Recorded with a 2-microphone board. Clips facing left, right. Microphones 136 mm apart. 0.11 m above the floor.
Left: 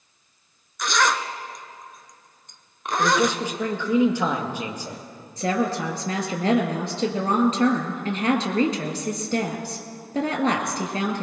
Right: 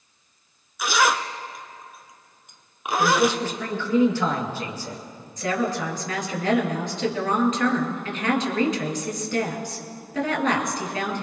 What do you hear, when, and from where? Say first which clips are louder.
0.8 s a zipper: right 1 dB; 5° right (ahead or behind), 0.6 m
3.0 s a man speaking: right 1 dB; 15° left (ahead or behind), 2 m
5.4 s a woman speaking: left 1 dB; 35° left (ahead or behind), 2.0 m